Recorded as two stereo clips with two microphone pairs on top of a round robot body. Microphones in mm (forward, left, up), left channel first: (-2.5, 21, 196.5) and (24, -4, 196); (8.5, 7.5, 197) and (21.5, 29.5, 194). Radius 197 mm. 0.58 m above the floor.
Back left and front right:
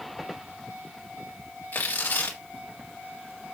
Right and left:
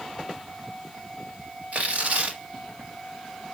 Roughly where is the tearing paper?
Left.